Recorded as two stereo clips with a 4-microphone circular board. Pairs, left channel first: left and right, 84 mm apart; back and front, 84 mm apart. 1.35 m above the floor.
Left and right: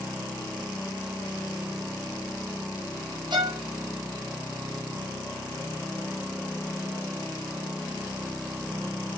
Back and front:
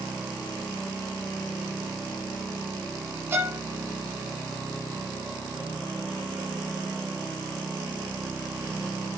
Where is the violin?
60° right, 1.2 m.